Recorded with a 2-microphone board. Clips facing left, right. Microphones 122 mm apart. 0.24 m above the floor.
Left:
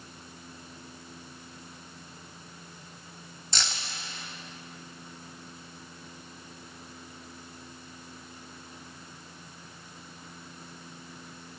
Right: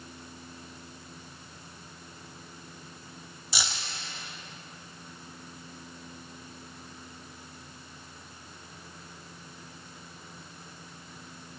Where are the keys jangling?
10° right (ahead or behind), 0.8 m.